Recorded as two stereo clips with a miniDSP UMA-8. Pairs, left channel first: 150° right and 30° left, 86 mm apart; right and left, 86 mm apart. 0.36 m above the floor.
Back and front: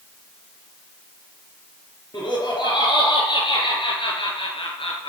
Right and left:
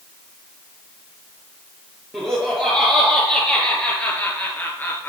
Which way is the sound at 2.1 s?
165° left.